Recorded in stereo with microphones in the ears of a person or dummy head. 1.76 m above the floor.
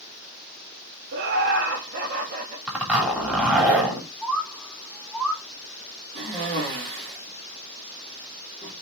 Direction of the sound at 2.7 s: 10° right (ahead or behind).